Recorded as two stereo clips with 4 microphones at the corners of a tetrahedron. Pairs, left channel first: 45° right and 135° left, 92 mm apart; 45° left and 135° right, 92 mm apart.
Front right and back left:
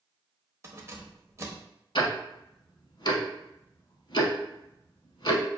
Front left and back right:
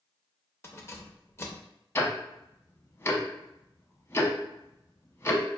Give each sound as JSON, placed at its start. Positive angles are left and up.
{"t": 0.6, "sound": "keys jangling", "azimuth_deg": 95, "distance_m": 0.6}
{"t": 1.9, "sound": "ticking", "azimuth_deg": -15, "distance_m": 0.7}